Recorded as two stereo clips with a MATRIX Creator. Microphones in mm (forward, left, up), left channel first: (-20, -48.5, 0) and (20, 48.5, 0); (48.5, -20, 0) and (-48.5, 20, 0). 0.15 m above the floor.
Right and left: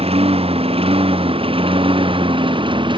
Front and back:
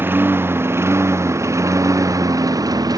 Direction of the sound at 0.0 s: 90° left.